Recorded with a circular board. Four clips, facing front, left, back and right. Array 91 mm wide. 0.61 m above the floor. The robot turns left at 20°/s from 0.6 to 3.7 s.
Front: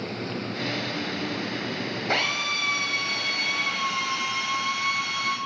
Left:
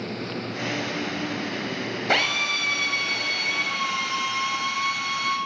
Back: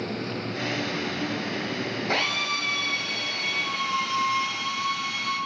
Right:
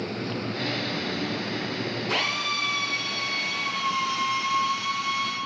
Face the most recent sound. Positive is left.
turn(degrees=50)